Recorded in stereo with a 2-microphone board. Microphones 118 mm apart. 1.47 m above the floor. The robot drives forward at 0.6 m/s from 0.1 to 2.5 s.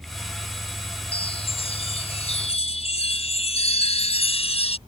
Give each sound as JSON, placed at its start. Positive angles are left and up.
{"t": 1.1, "sound": "a chime", "side_deg": 55}